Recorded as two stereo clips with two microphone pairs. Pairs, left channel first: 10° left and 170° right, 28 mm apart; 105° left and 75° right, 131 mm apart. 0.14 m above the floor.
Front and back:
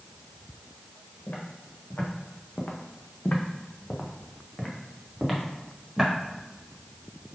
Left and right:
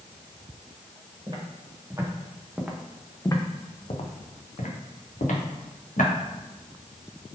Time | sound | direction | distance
1.3 | footsteps | 20° right | 1.4 m